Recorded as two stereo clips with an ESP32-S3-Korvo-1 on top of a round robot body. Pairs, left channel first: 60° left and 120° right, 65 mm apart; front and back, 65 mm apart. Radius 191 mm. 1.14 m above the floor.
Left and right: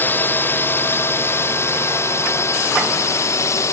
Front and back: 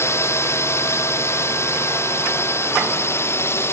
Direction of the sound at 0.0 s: 15° left.